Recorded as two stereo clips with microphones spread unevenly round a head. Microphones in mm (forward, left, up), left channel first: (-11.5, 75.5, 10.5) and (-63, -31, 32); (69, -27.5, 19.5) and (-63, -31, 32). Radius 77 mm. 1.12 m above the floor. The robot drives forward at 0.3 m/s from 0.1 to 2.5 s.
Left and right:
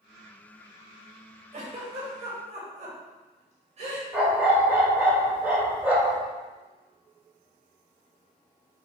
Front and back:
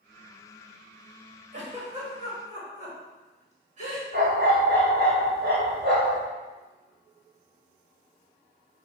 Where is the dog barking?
170° left, 2.0 m.